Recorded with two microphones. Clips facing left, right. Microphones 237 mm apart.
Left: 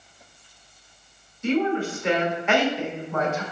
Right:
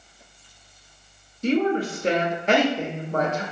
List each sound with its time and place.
1.4 s a woman speaking: 35° right (ahead or behind), 0.9 m